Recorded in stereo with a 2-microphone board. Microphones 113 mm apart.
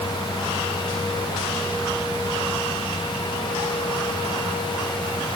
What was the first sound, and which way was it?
Only background noise.